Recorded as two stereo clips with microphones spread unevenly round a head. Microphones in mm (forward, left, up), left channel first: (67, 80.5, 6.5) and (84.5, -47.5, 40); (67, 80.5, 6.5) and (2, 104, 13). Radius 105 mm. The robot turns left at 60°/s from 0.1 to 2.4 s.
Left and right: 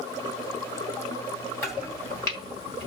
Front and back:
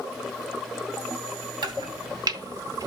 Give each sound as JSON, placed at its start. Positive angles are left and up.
{"t": 1.6, "sound": "chopping", "azimuth_deg": 180, "distance_m": 2.0}